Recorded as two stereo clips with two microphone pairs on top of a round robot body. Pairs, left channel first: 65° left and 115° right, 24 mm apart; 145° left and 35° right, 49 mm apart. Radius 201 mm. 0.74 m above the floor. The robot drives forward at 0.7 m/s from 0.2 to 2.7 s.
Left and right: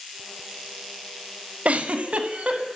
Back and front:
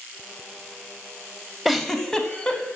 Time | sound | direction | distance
1.6 | a giggle | 125° right | 0.9 m